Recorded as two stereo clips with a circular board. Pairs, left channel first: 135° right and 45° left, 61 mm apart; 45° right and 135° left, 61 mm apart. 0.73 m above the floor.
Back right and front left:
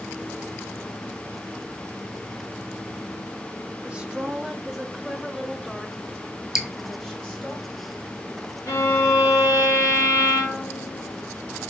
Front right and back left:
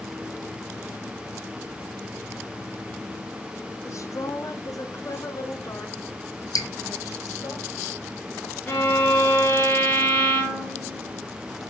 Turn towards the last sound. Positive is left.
turn(degrees=-100)